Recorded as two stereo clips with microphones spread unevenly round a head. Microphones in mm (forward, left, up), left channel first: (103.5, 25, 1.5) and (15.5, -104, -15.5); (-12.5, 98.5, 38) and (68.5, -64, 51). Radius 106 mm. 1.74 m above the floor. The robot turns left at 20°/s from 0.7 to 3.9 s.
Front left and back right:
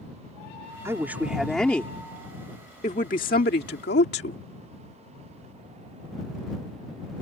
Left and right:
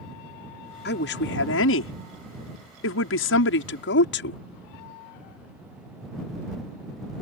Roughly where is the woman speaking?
Behind left.